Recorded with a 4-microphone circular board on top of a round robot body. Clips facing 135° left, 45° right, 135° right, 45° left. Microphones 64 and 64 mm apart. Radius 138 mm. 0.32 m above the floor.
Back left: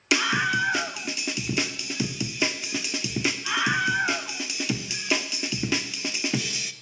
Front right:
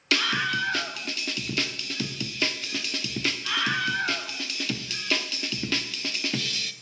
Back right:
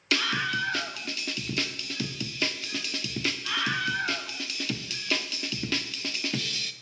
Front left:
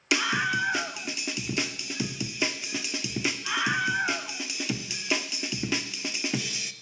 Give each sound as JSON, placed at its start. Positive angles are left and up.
{"t": 0.1, "sound": "a scream", "azimuth_deg": 90, "distance_m": 0.9}